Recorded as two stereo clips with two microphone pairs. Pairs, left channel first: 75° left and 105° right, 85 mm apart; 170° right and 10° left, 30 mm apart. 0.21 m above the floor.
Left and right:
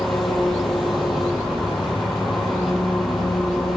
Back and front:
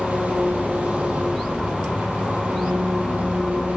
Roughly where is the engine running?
Ahead.